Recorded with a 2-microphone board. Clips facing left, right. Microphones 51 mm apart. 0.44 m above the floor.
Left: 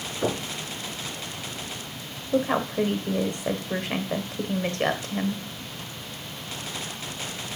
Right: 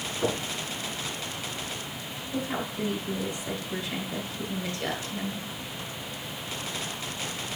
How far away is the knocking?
About 3.5 m.